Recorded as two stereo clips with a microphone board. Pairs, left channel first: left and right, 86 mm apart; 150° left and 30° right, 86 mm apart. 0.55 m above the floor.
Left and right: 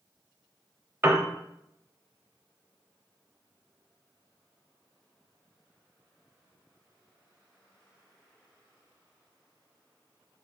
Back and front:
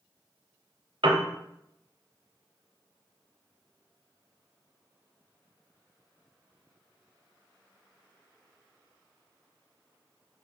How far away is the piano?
About 0.6 m.